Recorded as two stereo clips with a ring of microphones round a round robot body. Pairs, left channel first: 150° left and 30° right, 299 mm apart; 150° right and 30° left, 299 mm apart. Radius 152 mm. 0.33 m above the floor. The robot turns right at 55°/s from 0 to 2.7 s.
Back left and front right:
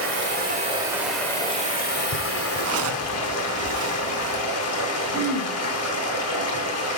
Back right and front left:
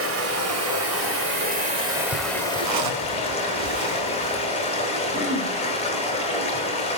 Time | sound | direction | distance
0.0 | running water | straight ahead | 1.6 m
2.6 | a zipper | 5° left | 0.9 m
5.1 | throat clearing | 10° left | 1.1 m